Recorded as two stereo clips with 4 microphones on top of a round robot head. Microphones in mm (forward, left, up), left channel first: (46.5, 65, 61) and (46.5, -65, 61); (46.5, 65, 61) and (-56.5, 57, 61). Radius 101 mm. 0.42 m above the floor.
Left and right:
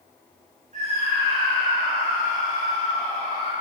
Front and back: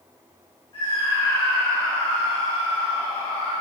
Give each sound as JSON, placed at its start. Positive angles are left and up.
{"t": 0.7, "sound": "a scream", "azimuth_deg": -60, "distance_m": 7.5}